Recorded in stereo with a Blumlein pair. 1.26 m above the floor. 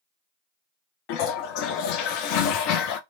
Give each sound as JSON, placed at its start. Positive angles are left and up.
{"t": 1.1, "sound": "a toilet flushing", "azimuth_deg": 40, "distance_m": 0.5}